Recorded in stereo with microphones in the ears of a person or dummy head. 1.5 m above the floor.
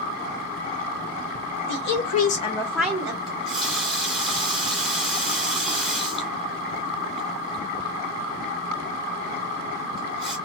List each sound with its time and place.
1.7 s a woman speaking: 65° left (ahead or behind), 0.9 m; by 3.2 s 25° right (ahead or behind), 0.7 m
3.3 s a running tap: centre (ahead or behind), 1.1 m